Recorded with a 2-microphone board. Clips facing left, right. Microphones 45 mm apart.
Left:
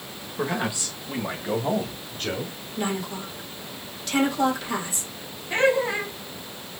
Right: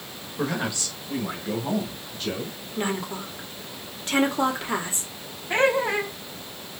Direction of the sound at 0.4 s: 10° left (ahead or behind).